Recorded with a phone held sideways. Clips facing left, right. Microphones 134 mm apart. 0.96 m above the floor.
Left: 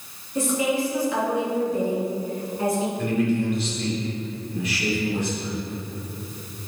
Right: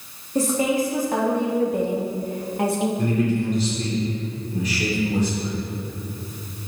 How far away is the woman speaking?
About 1.6 m.